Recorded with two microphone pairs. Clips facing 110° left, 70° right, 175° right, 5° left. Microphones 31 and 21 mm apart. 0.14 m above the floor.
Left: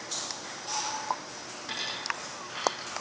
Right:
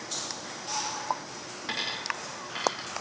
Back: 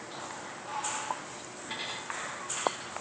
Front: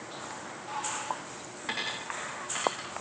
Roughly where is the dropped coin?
Ahead.